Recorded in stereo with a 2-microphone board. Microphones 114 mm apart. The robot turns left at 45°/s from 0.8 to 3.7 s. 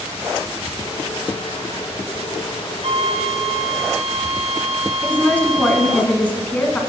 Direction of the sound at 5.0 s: 15° left (ahead or behind).